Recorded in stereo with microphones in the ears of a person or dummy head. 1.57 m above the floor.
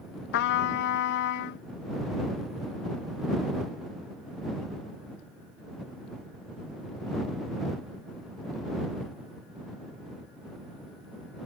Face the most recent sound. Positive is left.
turn(degrees=65)  # may be behind; listen again after turning